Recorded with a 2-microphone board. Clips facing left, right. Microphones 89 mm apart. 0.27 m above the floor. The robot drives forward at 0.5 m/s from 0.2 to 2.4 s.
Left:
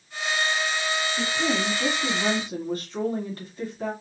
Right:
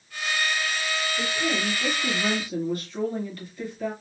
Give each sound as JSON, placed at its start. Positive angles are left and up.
{"t": 1.2, "sound": "a woman speaking", "side_deg": 45, "distance_m": 1.5}